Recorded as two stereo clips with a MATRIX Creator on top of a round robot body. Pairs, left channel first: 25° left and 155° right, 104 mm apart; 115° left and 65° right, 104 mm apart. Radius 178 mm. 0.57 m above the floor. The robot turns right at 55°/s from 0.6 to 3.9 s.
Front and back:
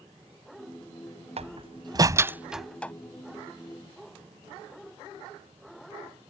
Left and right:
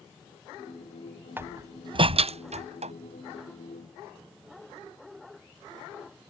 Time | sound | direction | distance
1.4 | a door slam | 140° right | ?